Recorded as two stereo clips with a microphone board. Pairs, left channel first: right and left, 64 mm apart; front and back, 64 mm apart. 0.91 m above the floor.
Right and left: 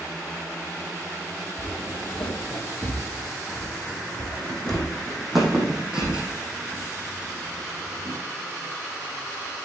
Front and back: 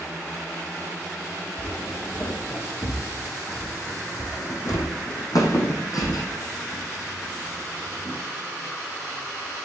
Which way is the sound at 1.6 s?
50° right.